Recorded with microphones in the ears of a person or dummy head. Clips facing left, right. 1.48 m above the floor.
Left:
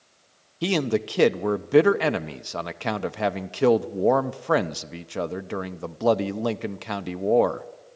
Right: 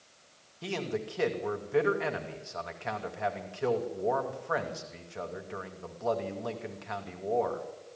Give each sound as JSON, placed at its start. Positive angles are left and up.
{"t": 0.6, "sound": "a man speaking", "side_deg": 75, "distance_m": 0.8}